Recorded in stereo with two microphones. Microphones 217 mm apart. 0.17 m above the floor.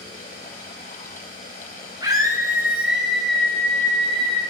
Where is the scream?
20° right (ahead or behind), 1.8 m; by 4.4 s 25° left (ahead or behind), 1.5 m.